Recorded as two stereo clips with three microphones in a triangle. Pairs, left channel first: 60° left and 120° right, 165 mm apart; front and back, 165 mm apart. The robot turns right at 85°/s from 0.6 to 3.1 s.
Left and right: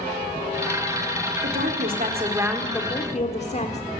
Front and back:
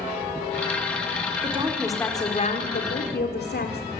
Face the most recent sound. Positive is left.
turn(degrees=10)